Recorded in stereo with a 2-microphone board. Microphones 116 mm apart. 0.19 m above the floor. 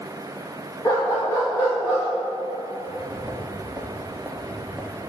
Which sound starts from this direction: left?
A dog barking, at 0.8 s.